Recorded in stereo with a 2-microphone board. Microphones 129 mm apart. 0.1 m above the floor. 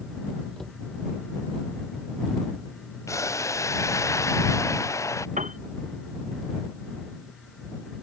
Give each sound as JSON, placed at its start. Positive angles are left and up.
{"t": 0.6, "sound": "a cupboard door", "side_deg": 5}
{"t": 3.1, "sound": "boiling", "side_deg": 25}
{"t": 5.4, "sound": "a piano", "side_deg": -75}